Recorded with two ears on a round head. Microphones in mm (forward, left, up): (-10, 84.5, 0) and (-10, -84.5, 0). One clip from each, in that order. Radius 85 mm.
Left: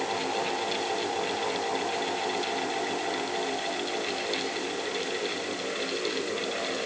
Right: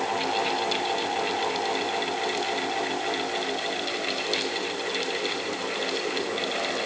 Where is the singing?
I don't hear singing.